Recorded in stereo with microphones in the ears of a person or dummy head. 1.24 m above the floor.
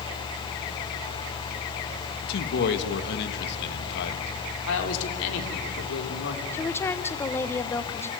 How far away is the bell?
I don't hear a bell.